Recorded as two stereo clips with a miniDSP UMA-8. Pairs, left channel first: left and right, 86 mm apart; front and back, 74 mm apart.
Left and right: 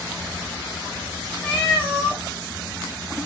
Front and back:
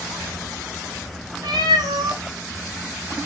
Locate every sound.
1.4 s a cat meowing: 155° left, 4 m